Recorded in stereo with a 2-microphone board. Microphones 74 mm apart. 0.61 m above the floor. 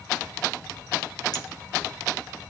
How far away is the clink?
About 2 m.